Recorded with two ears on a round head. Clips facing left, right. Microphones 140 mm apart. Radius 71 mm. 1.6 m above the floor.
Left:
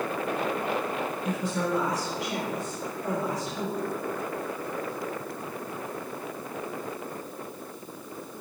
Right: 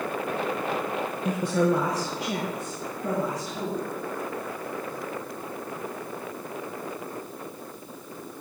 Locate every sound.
1.2 s a woman speaking: 40° right (ahead or behind), 0.8 m; by 3.8 s 65° right (ahead or behind), 3.5 m